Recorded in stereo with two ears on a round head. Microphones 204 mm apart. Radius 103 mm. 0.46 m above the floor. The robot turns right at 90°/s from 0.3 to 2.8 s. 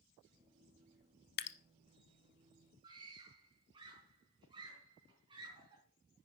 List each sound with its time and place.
1.4 s dripping: 40° left (ahead or behind), 0.7 m; by 1.6 s 55° left (ahead or behind), 0.7 m
2.8 s a scream: 20° right (ahead or behind), 4.5 m